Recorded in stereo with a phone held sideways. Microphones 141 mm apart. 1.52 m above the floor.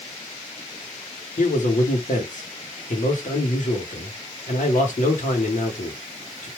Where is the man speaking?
65° left (ahead or behind), 1.2 m.